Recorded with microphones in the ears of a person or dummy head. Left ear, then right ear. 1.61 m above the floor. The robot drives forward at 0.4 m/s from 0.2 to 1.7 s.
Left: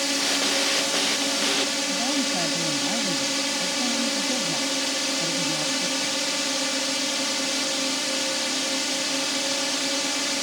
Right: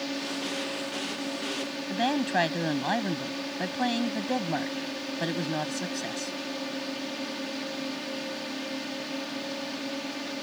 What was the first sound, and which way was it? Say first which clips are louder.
A drone: left 9 dB; 75° left (ahead or behind).